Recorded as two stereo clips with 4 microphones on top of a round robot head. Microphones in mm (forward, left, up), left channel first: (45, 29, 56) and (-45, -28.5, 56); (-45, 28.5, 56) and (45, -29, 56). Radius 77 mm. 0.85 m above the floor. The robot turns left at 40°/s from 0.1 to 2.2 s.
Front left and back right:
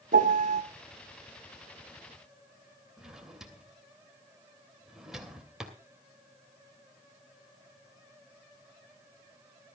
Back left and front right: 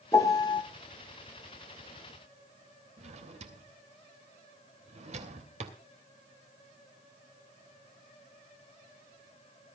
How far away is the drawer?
About 2.5 m.